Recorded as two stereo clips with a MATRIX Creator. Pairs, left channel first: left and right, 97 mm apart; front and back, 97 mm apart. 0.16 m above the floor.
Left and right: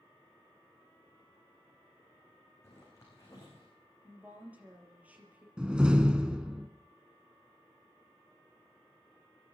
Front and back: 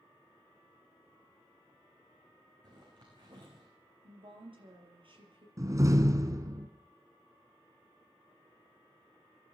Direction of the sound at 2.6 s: 145° left.